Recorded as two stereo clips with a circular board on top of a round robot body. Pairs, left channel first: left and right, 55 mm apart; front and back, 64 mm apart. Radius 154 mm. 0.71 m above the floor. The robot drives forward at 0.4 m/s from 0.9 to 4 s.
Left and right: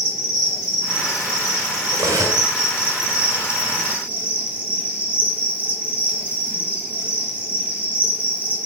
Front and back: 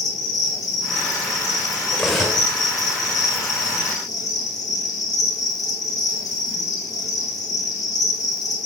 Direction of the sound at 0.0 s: 15° right.